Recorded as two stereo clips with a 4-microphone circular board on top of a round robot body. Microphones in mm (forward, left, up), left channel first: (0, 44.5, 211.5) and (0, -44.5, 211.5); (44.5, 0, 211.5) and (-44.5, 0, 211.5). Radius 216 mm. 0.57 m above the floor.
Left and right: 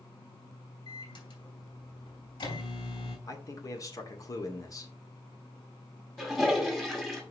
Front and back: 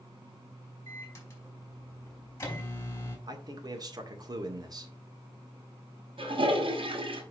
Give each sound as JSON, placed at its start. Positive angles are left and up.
{"t": 0.9, "sound": "a microwave", "azimuth_deg": 65, "distance_m": 4.0}
{"t": 3.3, "sound": "a man speaking", "azimuth_deg": 140, "distance_m": 2.0}
{"t": 6.2, "sound": "a toilet flushing", "azimuth_deg": 180, "distance_m": 2.5}